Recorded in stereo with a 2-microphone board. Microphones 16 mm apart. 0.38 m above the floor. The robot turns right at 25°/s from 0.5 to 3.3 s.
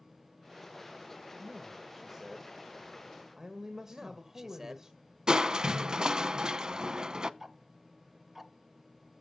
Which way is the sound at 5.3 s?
50° right (ahead or behind).